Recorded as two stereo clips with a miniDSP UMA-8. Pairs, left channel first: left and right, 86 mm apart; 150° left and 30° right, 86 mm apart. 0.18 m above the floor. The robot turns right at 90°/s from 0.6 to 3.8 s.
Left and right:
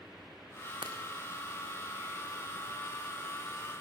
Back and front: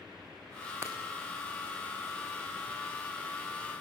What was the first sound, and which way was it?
Breaking glass, 90° right.